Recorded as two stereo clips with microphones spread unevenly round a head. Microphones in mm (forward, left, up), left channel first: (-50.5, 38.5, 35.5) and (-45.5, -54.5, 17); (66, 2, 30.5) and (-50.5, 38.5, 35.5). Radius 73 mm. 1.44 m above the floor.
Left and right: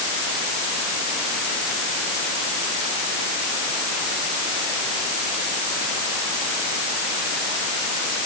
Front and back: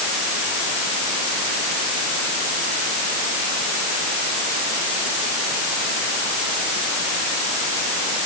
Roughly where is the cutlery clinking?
I don't hear cutlery clinking.